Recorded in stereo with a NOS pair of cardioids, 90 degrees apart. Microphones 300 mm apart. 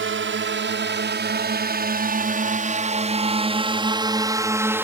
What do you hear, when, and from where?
0.0 s a drone: 40° right; by 4.8 s 5° right